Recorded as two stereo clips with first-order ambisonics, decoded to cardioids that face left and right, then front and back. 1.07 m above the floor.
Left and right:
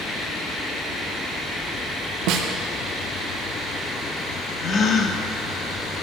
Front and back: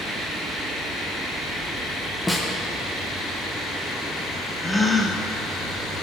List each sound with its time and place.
2.3 s a snare drum: 85° right, 0.8 m
4.6 s a gasp: 75° left, 0.6 m